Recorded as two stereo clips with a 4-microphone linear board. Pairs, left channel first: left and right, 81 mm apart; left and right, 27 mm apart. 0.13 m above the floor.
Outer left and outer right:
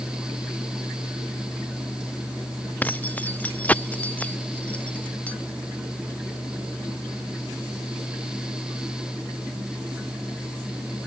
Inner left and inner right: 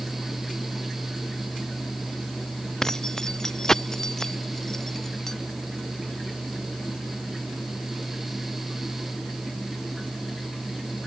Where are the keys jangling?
20° left (ahead or behind); by 5.3 s 15° left (ahead or behind).